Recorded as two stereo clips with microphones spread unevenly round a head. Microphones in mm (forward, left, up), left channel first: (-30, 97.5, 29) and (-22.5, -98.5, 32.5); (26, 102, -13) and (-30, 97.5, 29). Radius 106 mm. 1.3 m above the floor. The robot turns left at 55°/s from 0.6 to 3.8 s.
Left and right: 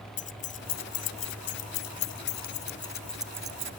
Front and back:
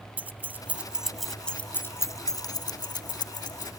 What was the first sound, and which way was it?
Keys jangling, 145° left.